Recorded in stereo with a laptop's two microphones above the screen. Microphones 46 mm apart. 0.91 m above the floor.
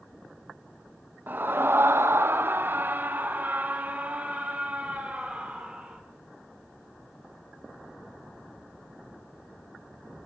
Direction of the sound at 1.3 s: 40° right (ahead or behind).